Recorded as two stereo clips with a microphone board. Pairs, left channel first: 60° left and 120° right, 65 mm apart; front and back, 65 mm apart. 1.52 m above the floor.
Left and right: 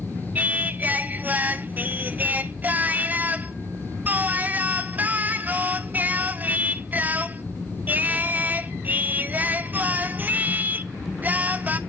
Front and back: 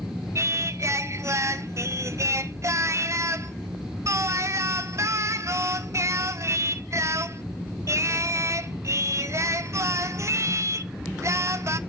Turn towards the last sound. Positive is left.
turn(degrees=-175)